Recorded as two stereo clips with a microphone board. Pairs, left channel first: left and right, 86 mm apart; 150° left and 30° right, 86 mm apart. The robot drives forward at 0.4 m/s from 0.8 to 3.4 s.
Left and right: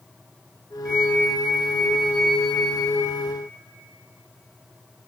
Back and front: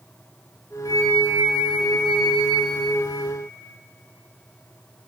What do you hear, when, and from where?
0.8 s a flute: 170° right, 2.5 m